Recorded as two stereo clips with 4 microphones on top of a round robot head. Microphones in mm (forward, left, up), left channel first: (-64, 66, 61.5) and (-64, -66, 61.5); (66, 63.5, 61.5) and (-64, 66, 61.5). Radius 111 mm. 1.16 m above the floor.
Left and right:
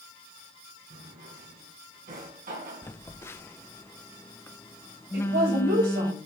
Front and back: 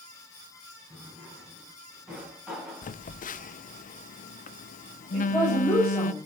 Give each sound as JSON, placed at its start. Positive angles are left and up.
{"t": 0.9, "sound": "a drawer", "azimuth_deg": -95, "distance_m": 3.5}
{"t": 2.8, "sound": "a phone buzzing", "azimuth_deg": 15, "distance_m": 0.6}
{"t": 5.1, "sound": "a woman speaking", "azimuth_deg": -80, "distance_m": 6.0}